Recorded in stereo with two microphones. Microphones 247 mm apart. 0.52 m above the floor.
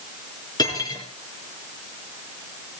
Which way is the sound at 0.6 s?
15° left (ahead or behind).